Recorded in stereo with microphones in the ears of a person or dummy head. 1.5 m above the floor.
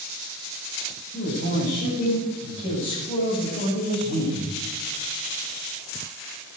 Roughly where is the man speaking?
Left.